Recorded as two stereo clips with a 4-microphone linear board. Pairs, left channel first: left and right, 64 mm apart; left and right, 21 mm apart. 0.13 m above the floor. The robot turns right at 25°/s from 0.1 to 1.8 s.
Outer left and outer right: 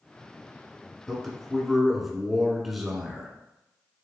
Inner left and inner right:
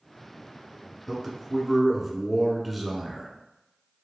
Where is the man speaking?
5° left (ahead or behind), 1.1 m; by 3.3 s centre (ahead or behind), 1.1 m.